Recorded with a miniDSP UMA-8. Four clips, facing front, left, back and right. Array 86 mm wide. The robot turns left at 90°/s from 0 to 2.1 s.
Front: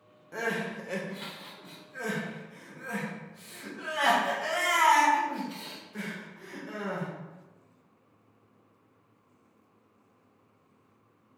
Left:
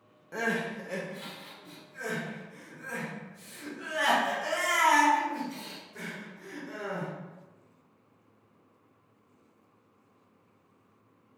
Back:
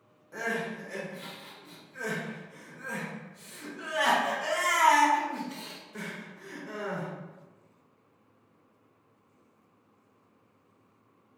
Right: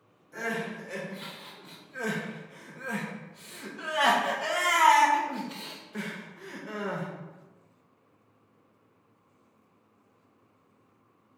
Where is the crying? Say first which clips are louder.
Left 2 dB, front 1 dB; 65° left, 0.9 m; by 7.1 s 95° right, 0.9 m.